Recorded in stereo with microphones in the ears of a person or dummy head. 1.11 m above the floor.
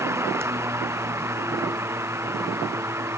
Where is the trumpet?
No trumpet in this recording.